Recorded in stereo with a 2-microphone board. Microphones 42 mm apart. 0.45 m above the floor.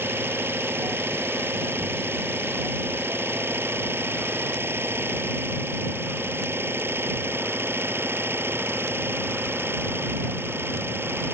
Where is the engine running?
70° right (ahead or behind).